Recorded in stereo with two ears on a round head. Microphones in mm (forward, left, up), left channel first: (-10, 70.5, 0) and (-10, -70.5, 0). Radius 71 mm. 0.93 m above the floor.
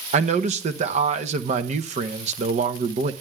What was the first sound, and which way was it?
A man speaking, 40° right (ahead or behind).